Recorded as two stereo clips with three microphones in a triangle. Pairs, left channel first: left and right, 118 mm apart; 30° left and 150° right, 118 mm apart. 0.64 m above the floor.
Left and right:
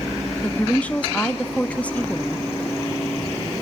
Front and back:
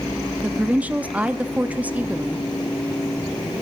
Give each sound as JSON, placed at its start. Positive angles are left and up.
{"t": 0.4, "sound": "a woman speaking", "azimuth_deg": 155, "distance_m": 0.5}